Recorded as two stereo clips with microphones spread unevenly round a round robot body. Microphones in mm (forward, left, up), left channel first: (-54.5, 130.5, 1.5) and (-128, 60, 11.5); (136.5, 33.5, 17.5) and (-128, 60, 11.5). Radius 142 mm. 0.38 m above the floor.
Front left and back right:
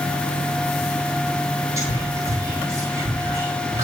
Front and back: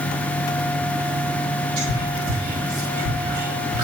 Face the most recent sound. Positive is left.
turn(degrees=160)